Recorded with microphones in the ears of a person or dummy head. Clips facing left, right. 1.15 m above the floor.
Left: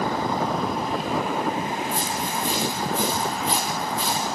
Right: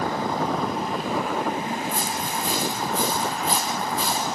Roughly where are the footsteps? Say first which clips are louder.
Left 1 dB; right.